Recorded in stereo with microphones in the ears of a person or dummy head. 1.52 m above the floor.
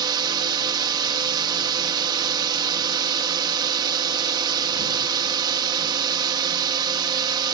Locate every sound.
0.0 s a drone: 20° right (ahead or behind)